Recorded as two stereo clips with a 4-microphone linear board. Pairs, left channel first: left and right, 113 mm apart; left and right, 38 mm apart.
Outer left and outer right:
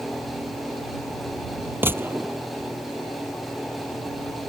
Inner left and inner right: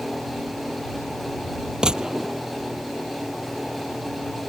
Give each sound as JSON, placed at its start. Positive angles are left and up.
{"t": 1.8, "sound": "a gunshot", "side_deg": -20}